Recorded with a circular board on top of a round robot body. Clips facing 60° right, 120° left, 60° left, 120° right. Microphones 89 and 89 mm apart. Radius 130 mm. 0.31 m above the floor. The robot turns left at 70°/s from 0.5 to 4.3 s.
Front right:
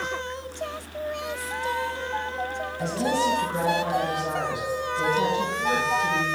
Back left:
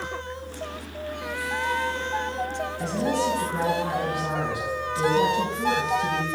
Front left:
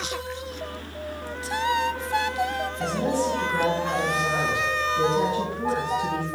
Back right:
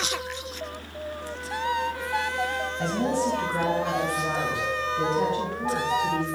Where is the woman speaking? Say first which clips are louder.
Front right 1 dB, even; 115° right, 4 m; by 6.2 s 135° left, 4 m.